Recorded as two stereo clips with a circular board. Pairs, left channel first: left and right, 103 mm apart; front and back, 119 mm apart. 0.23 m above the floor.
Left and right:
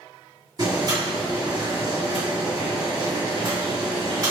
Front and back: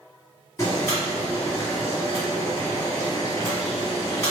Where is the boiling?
60° right, 1.9 m.